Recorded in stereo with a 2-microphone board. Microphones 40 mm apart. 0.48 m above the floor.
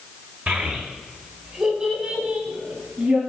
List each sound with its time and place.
0.5 s a child speaking: 45° right (ahead or behind), 1.2 m; by 3.2 s 30° right (ahead or behind), 3 m